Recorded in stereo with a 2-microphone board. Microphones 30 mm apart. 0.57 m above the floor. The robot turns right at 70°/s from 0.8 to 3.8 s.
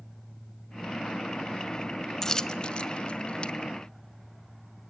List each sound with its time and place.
2.2 s a dropped coin: 15° left (ahead or behind), 0.6 m; by 3.5 s 35° left (ahead or behind), 0.6 m